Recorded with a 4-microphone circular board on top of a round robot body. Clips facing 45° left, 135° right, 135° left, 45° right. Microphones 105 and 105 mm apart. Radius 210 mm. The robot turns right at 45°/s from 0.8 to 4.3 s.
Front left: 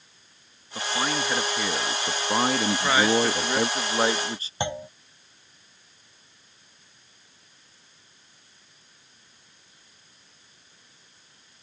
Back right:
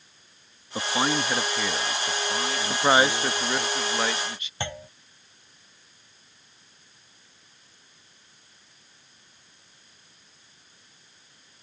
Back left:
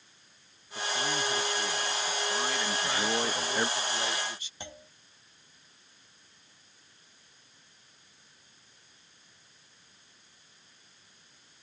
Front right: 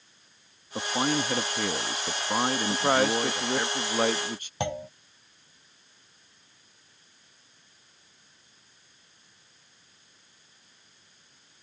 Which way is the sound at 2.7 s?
80° right.